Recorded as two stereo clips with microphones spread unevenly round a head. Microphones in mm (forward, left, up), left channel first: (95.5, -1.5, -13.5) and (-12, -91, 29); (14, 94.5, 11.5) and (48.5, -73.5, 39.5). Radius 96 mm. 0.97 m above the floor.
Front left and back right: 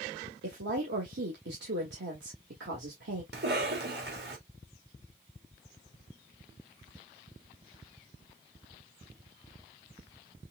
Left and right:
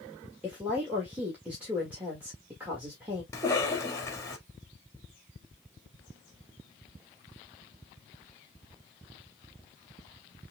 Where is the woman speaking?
165° right, 1.7 m.